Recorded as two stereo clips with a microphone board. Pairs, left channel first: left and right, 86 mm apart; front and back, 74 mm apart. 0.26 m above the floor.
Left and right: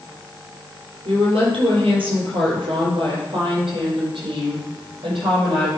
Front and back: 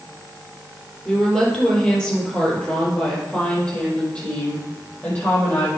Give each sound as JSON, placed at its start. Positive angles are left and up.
{"t": 1.1, "sound": "a woman speaking", "azimuth_deg": -80, "distance_m": 5.0}